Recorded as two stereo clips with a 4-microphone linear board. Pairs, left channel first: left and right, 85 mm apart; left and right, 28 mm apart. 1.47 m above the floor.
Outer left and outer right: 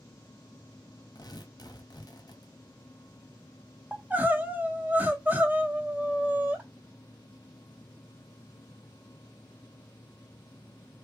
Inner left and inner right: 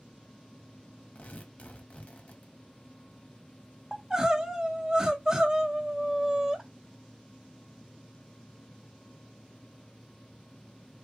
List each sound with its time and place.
1.1 s tearing paper: 50° left (ahead or behind), 1.0 m
3.9 s crying: 20° right (ahead or behind), 1.0 m